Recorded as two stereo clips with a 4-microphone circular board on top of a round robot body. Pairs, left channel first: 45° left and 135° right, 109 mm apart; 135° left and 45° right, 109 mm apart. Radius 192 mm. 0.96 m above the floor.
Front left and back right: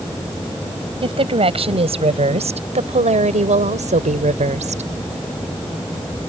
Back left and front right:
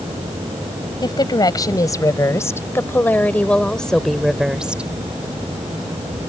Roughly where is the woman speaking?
Behind.